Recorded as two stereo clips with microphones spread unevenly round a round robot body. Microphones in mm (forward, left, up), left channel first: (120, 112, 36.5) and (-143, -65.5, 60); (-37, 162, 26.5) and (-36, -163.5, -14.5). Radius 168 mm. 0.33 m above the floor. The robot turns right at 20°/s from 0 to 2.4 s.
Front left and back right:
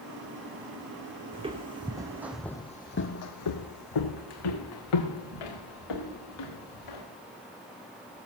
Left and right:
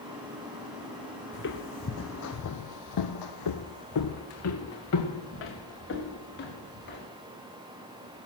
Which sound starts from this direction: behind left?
Footsteps, at 1.3 s.